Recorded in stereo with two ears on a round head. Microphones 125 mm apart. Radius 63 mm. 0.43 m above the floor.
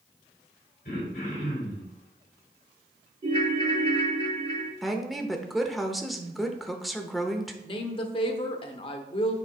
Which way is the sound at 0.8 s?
60° left (ahead or behind).